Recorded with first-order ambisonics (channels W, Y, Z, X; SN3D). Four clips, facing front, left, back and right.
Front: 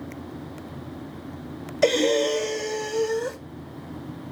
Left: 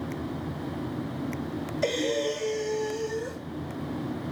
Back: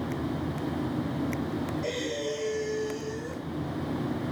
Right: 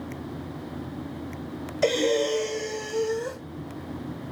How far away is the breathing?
About 1.2 m.